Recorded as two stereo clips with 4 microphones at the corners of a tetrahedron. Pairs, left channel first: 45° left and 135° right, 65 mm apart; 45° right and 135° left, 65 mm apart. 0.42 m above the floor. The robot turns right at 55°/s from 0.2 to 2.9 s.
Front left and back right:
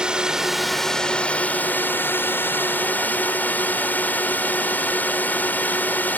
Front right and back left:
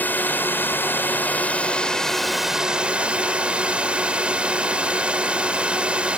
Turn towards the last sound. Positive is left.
turn(degrees=80)